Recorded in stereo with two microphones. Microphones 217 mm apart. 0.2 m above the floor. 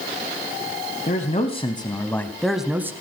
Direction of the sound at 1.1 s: 40° left (ahead or behind).